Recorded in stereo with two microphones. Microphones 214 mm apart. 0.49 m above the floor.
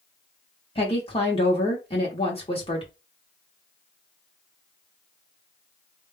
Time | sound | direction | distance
0.8 | a woman speaking | 25° left (ahead or behind) | 0.9 m